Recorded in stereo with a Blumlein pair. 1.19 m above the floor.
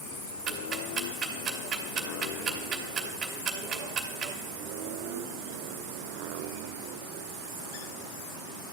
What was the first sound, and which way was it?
Ticking, 25° right.